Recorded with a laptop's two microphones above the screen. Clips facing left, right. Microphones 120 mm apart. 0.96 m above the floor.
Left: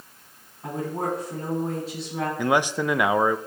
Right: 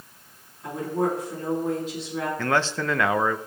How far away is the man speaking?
About 0.5 m.